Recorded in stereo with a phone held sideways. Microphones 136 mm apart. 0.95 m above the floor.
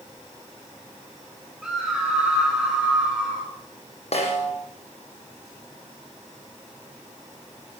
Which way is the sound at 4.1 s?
55° left (ahead or behind).